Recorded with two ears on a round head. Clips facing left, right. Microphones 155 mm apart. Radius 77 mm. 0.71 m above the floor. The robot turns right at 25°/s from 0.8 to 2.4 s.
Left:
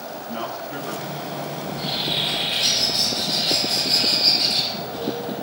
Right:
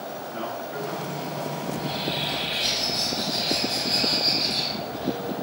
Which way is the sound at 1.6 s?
50° left (ahead or behind).